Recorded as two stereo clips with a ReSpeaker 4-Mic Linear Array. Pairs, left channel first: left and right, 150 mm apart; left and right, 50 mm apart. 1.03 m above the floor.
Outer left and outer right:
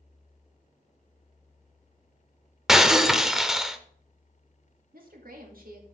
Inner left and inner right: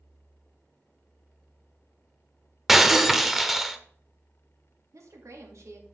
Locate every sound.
2.7 s breaking glass: 5° right (ahead or behind), 0.7 m
4.9 s a woman speaking: 75° right (ahead or behind), 2 m